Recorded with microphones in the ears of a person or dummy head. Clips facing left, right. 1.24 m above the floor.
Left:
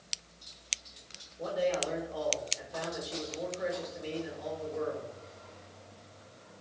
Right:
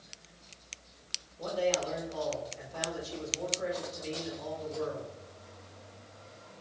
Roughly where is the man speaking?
Centre.